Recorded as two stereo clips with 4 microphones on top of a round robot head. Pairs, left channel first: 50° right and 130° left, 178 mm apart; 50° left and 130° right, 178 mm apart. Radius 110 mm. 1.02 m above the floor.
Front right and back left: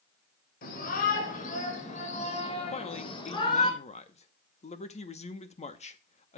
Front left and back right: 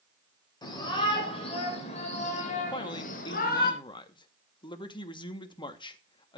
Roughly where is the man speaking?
Ahead.